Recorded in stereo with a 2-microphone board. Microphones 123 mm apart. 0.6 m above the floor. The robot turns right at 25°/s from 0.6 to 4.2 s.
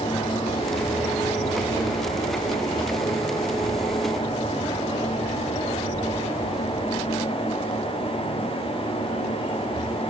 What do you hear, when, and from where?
Only background noise.